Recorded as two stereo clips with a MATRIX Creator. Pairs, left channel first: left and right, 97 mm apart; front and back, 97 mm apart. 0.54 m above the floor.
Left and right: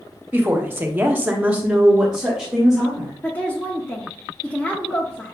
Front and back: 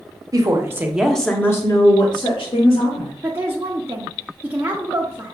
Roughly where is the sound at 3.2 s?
Behind left.